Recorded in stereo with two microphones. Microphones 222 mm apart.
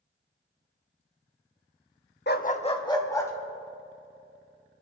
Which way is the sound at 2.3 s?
50° left (ahead or behind).